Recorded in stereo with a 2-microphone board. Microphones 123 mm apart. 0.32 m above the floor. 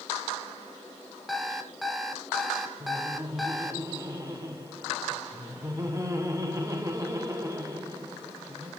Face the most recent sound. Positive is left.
turn(degrees=-25)  # may be behind; listen again after turning